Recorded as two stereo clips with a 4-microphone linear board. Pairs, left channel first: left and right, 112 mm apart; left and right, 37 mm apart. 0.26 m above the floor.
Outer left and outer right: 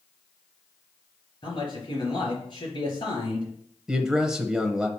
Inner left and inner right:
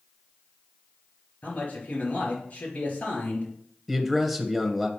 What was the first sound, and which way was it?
A man speaking, 45° left (ahead or behind).